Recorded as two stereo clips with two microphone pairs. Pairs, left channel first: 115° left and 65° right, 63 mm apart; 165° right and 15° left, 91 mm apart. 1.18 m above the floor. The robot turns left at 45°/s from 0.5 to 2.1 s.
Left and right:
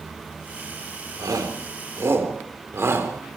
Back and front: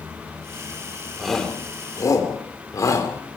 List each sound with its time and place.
1.2 s a shout: 70° right, 3.5 m; by 3.1 s 110° right, 3.5 m